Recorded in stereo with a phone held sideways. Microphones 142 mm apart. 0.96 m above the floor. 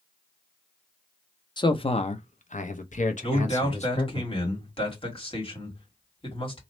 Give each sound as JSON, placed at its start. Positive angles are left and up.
{"t": 1.6, "sound": "a man speaking", "side_deg": 30, "distance_m": 0.7}
{"t": 3.2, "sound": "a man speaking", "side_deg": 40, "distance_m": 2.0}